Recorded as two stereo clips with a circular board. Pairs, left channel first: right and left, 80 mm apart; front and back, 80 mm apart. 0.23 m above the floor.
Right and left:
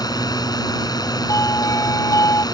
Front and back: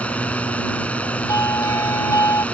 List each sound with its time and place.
0.0 s a drone: 70° right
1.3 s a doorbell: 45° right